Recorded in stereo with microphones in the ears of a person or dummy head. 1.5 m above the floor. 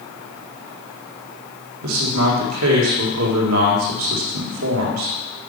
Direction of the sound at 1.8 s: 80° right.